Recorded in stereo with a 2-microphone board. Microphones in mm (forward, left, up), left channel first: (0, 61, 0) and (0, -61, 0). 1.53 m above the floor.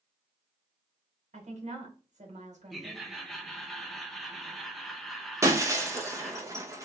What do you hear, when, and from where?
1.3 s a woman speaking: 80° right, 1.7 m
2.7 s laughter: centre (ahead or behind), 1.2 m
5.4 s breaking glass: 25° right (ahead or behind), 0.8 m